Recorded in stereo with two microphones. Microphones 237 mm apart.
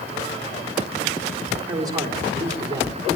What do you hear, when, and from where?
1.7 s a man speaking: 15° right (ahead or behind), 4 m